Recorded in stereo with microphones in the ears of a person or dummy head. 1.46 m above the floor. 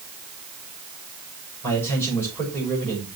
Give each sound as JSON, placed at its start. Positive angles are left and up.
{"t": 1.6, "sound": "a man speaking", "side_deg": 10, "distance_m": 5.5}